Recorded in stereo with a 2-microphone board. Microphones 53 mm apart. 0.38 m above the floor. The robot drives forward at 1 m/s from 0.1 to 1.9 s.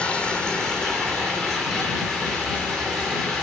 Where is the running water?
25° left (ahead or behind), 1.2 m; by 3.4 s 10° left (ahead or behind), 3 m.